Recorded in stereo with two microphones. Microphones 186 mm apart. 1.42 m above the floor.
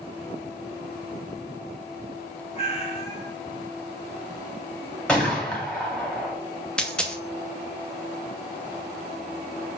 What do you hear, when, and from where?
2.5 s a cat meowing: 35° left (ahead or behind), 0.9 m
5.1 s a gunshot: 5° left (ahead or behind), 1.6 m
6.8 s a dropped coin: 5° left (ahead or behind), 0.7 m